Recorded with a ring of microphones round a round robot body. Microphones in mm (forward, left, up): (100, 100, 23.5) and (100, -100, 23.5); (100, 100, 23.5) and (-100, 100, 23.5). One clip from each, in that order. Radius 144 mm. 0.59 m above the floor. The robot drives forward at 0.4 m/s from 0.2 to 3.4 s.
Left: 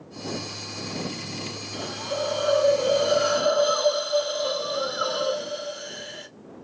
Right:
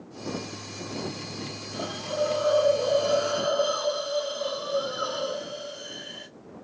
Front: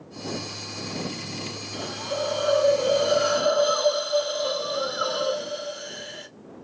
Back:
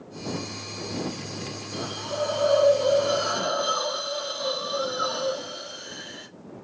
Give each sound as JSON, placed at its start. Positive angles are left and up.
{"t": 1.7, "sound": "a hiss", "azimuth_deg": 45, "distance_m": 2.0}